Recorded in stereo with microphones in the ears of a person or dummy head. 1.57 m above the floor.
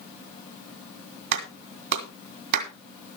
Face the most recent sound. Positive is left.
turn(degrees=-65)  # may be behind; listen again after turning